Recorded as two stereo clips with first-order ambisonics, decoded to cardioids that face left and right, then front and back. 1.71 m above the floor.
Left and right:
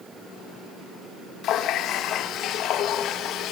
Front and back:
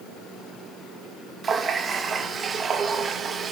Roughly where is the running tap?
Behind left.